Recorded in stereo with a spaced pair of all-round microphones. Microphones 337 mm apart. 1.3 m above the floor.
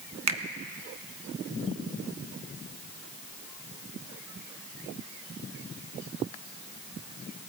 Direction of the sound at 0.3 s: 55° right (ahead or behind).